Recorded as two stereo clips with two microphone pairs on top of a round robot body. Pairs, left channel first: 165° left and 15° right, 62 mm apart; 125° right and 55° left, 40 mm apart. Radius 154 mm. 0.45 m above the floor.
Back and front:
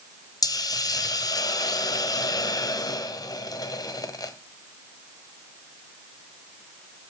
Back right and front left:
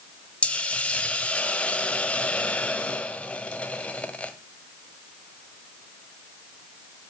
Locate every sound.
0.4 s a hiss: 170° left, 1.3 m